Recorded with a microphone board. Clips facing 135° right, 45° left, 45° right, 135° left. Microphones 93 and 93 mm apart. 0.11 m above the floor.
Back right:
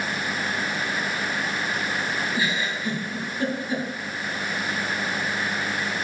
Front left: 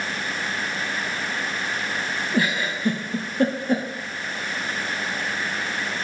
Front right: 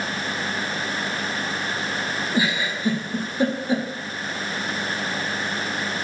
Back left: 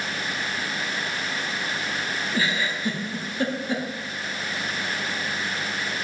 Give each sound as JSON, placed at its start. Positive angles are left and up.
{"t": 2.3, "sound": "a giggle", "azimuth_deg": 30, "distance_m": 1.3}